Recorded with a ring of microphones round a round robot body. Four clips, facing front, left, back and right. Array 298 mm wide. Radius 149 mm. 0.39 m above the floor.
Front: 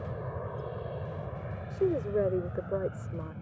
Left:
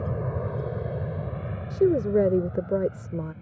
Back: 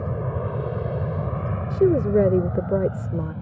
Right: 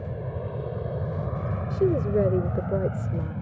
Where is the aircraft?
150° left; by 3.4 s 125° right.